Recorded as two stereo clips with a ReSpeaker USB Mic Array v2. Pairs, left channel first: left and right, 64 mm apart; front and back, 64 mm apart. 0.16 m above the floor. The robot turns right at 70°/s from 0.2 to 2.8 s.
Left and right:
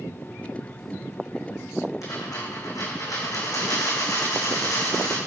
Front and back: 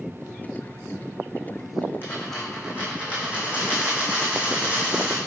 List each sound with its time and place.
2.0 s a dropped coin: 55° left, 5 m; by 5.2 s 110° left, 5 m